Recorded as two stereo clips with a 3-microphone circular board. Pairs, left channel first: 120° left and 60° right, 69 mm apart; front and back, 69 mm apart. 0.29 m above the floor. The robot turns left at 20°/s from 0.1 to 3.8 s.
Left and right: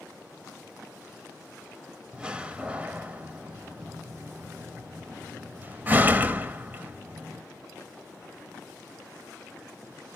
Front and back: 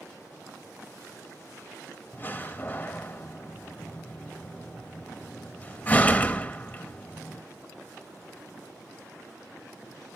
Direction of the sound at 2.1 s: Straight ahead.